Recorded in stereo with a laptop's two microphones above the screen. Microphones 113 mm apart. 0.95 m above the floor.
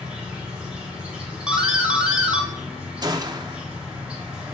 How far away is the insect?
About 1.6 m.